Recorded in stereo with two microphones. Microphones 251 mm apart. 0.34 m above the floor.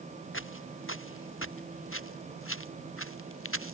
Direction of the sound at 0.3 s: 55° left (ahead or behind).